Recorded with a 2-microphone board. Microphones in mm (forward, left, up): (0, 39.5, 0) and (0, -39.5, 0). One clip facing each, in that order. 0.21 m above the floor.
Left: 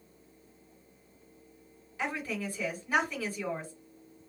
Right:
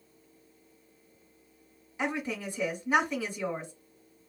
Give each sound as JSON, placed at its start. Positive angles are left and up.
{"t": 2.0, "sound": "a woman speaking", "side_deg": -20, "distance_m": 1.8}